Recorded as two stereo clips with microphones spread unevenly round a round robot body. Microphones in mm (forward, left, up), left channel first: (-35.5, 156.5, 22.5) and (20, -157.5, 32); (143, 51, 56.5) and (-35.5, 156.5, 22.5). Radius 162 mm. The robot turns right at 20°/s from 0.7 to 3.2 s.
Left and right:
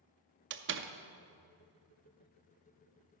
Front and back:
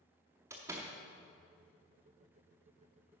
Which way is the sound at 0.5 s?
135° right.